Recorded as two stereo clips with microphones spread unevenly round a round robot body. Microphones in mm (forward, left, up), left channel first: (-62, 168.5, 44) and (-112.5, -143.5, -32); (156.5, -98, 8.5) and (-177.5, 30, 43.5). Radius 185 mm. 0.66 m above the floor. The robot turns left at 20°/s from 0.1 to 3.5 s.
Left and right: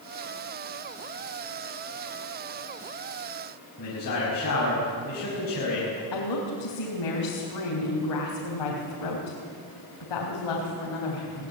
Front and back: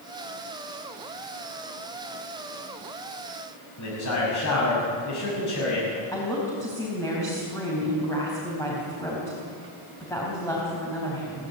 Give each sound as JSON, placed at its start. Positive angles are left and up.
{"t": 3.8, "sound": "a man speaking", "azimuth_deg": 25, "distance_m": 6.0}
{"t": 6.1, "sound": "a woman speaking", "azimuth_deg": 60, "distance_m": 4.0}